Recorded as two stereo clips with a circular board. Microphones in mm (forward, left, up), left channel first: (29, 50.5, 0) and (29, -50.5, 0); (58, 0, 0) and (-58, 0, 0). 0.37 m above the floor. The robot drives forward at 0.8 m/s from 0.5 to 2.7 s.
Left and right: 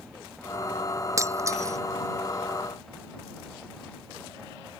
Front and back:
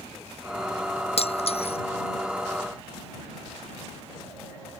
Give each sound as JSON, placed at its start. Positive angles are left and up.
{"t": 1.2, "sound": "breaking glass", "azimuth_deg": -30}